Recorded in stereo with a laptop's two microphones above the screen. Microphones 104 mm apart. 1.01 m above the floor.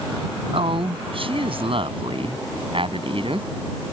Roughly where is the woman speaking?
Right.